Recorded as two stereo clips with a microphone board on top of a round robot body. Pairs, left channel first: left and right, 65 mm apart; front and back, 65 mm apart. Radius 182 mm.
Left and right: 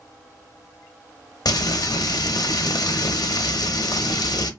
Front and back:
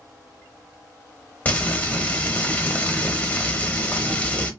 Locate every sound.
1.4 s frying: 65° left, 0.7 m